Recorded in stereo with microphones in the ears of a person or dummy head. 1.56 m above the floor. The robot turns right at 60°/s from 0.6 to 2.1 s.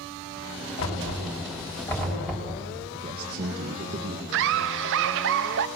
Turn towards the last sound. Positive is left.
turn(degrees=-65)  # may be behind; listen again after turning